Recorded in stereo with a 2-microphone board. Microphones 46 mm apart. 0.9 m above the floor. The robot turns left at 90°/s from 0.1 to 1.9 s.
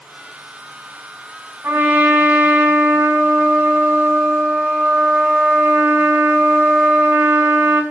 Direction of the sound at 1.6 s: 60° right (ahead or behind).